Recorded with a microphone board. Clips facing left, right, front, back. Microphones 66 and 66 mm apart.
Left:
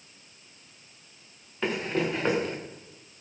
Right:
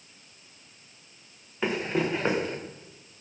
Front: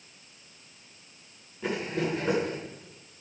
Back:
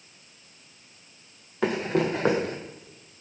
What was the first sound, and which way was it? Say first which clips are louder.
Running footsteps: right 1 dB, back 5 dB; 175° right.